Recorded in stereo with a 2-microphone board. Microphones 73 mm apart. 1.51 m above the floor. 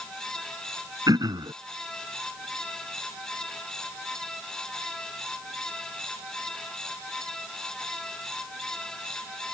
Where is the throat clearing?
75° right (ahead or behind).